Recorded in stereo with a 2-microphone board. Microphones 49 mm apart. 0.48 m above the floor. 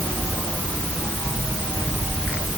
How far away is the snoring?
No snoring in this recording.